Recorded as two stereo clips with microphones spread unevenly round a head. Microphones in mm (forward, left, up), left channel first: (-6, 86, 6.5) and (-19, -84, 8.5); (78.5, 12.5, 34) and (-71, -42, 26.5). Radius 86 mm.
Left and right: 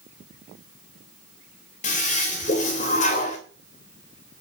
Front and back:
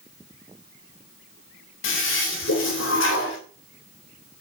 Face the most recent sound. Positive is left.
turn(degrees=35)